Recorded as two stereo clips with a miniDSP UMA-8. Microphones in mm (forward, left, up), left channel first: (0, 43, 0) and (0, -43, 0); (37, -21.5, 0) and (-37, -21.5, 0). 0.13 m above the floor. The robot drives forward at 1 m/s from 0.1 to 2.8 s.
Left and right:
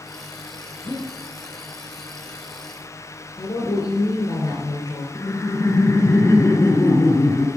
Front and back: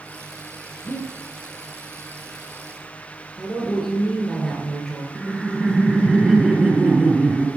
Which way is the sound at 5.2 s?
100° left.